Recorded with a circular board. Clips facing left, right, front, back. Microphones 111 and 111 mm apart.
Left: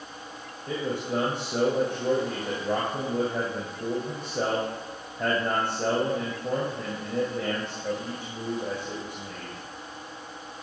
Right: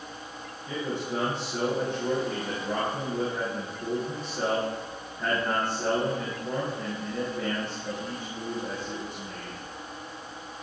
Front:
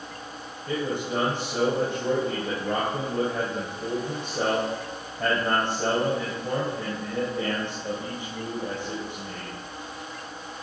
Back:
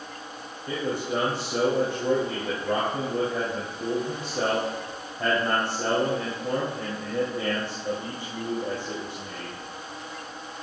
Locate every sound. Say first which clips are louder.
0.7 s a man speaking: left 2 dB, even; 100° left, 2.5 m